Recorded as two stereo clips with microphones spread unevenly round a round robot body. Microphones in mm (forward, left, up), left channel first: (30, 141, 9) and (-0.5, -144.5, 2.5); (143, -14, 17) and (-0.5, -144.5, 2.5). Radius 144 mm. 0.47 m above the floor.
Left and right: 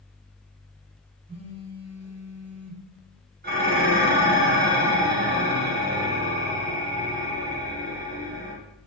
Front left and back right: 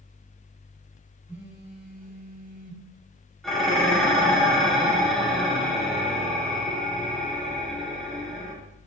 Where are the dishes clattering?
50° right, 1.0 m.